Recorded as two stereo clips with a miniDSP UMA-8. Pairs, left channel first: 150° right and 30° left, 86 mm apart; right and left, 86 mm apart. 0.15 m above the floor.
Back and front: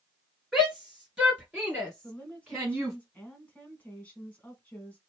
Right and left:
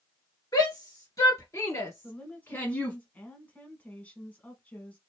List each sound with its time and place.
0.5 s a shout: 60° right, 2.5 m; by 3.0 s 50° right, 1.3 m
2.0 s a woman speaking: 120° right, 1.1 m